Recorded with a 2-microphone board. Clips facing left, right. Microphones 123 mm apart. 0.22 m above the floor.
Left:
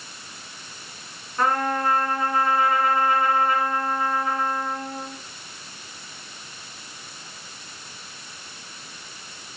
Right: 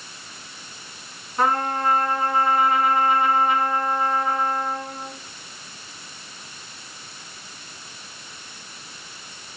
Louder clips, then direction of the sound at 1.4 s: Right 1 dB; 20° right (ahead or behind).